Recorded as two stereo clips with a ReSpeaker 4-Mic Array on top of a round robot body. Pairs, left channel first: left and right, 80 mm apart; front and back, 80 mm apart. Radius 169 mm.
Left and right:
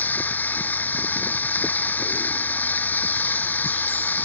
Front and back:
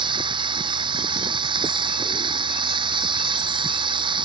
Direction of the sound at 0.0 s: 160° left.